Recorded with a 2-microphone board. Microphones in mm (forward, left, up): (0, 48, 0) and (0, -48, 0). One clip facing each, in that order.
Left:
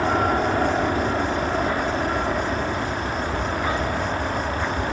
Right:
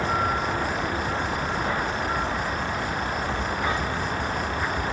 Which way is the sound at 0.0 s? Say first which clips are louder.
Left 4 dB; 60° left (ahead or behind).